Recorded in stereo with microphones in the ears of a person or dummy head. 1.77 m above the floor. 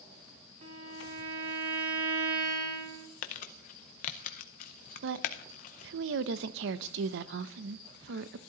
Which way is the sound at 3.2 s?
40° left (ahead or behind).